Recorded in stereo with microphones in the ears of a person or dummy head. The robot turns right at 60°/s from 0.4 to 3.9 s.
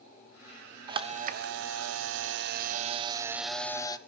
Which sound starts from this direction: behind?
A camera shutter, at 0.9 s.